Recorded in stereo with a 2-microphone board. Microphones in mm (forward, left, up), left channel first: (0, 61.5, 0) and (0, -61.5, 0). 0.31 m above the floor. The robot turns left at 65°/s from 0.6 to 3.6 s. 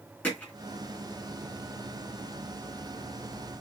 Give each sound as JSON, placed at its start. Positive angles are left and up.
{"t": 0.2, "sound": "hammering", "side_deg": 10, "distance_m": 2.5}